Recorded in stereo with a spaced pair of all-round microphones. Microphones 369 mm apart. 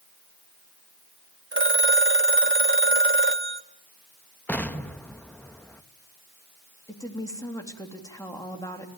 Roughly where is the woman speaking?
Centre.